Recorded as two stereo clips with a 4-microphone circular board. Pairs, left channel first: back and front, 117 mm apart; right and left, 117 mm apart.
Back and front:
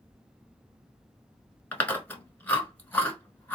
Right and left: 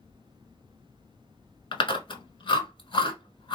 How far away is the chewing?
About 1.0 m.